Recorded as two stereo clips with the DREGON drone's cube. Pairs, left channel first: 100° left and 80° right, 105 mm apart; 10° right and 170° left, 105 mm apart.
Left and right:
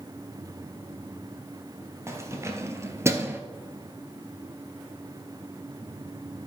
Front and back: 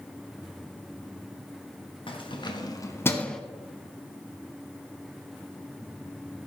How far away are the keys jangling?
About 1.7 m.